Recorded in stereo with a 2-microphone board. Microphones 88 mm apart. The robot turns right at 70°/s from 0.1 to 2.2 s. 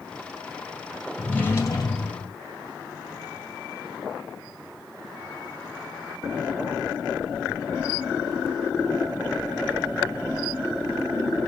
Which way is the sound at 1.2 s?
5° left.